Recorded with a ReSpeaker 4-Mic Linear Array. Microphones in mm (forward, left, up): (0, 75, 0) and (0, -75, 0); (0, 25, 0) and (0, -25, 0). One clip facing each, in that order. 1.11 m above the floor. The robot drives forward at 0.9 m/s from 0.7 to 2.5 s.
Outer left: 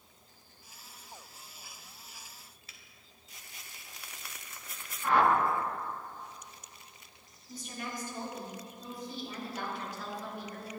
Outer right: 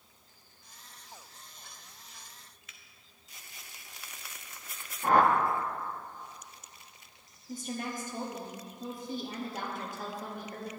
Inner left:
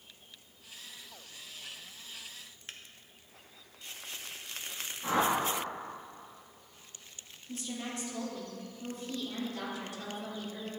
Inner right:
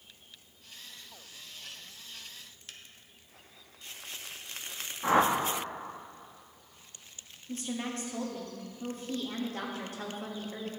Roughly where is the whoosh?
Right.